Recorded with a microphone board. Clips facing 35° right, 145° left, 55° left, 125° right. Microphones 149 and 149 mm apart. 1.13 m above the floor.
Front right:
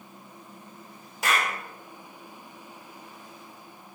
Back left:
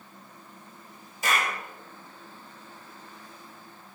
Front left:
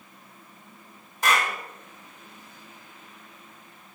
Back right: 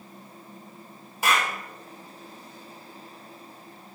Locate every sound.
1.2 s a clap: 45° right, 3.5 m